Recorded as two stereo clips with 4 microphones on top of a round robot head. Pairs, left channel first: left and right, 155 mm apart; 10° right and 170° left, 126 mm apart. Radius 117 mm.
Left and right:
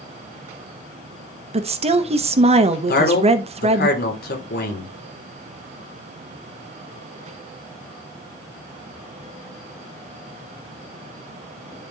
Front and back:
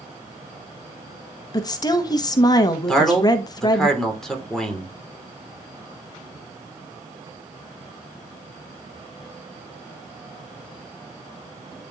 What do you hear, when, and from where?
1.5 s a woman speaking: 60° right, 1.1 m
2.9 s a man speaking: 75° left, 3 m